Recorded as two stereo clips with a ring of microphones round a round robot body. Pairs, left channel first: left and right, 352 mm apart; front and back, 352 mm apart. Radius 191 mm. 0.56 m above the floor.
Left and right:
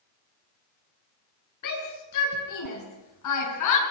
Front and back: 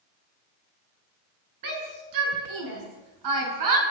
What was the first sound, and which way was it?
A shout, 135° left.